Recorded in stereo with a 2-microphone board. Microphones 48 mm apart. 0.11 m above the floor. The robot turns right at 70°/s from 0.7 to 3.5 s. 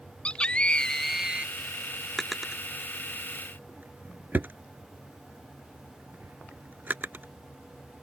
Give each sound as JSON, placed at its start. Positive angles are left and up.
{"t": 0.2, "sound": "a scream", "azimuth_deg": 160}
{"t": 2.2, "sound": "a drawer", "side_deg": 5}